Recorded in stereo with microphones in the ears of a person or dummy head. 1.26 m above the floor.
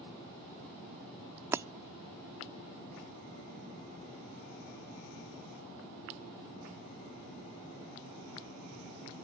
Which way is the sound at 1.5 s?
10° right (ahead or behind).